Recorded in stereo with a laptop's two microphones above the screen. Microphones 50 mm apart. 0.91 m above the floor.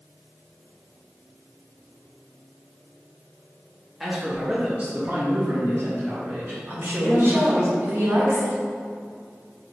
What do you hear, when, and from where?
4.0 s a man speaking: 5° right (ahead or behind), 1.7 m; by 7.7 s 65° right (ahead or behind), 3 m
6.7 s a woman speaking: 50° right (ahead or behind), 1.0 m